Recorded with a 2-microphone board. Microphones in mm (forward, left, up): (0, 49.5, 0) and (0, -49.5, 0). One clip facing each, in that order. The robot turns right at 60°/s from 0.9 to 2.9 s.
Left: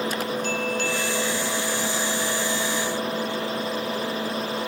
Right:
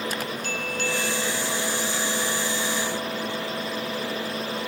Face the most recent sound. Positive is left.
No sound to turn to.